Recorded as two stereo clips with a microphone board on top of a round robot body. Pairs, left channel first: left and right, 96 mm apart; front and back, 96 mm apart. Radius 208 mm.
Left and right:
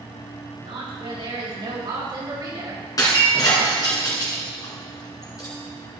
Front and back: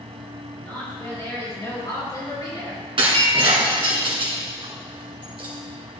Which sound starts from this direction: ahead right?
A woman speaking, at 0.6 s.